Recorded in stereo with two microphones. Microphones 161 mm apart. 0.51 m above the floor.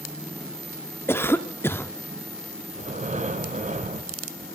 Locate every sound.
1.1 s a cough: 15° left (ahead or behind), 0.6 m
2.8 s breathing: 50° right (ahead or behind), 0.9 m